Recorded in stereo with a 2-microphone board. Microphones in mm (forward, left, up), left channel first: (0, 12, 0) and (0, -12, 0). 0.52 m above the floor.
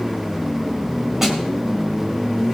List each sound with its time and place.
1.2 s a snare drum: 15° right (ahead or behind), 3 m